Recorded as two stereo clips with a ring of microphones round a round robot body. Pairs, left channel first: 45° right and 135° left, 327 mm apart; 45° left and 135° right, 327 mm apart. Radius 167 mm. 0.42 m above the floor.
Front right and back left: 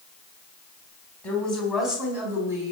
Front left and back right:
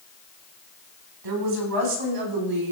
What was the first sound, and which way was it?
A woman speaking, 130° right.